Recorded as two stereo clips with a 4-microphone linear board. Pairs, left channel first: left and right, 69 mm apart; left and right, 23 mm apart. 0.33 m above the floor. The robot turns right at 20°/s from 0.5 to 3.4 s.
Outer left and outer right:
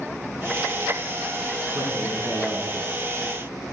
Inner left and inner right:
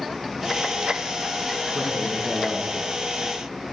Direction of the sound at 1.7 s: 55° right.